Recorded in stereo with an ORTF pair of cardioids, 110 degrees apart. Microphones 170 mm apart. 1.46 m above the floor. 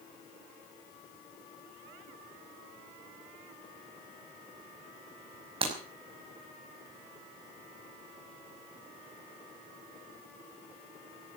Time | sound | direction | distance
5.6 | breaking glass | 35° right | 5.5 m